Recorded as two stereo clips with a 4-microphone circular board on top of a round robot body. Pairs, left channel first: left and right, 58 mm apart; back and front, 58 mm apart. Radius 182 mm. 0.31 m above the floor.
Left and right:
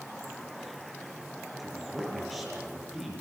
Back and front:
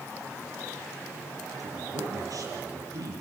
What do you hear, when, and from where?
1.6 s a woman speaking: straight ahead, 6 m